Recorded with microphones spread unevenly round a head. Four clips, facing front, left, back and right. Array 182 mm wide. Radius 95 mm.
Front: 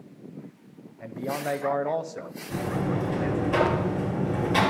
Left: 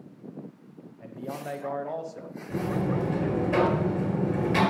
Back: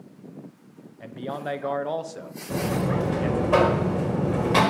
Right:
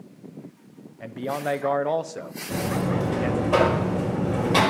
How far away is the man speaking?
About 0.8 m.